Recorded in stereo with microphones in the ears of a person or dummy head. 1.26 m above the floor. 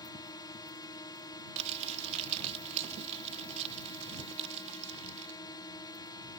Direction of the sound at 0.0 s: 20° left (ahead or behind).